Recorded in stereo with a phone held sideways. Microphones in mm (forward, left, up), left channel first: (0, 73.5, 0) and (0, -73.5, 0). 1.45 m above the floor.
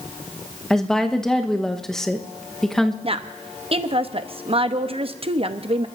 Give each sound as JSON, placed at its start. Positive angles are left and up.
{"t": 0.7, "sound": "a woman speaking", "side_deg": 5, "distance_m": 1.0}
{"t": 3.0, "sound": "a woman speaking", "side_deg": -40, "distance_m": 0.8}